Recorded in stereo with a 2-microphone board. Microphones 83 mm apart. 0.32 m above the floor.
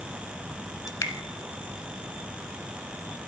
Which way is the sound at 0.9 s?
45° left (ahead or behind).